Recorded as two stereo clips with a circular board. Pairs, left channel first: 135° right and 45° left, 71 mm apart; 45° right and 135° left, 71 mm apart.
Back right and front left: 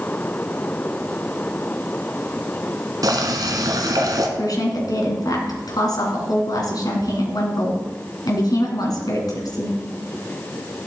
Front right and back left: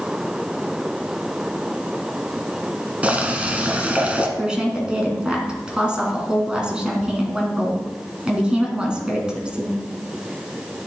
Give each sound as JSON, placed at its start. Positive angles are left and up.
{"t": 3.0, "sound": "boiling", "azimuth_deg": 65, "distance_m": 1.7}
{"t": 4.4, "sound": "a woman speaking", "azimuth_deg": -145, "distance_m": 3.0}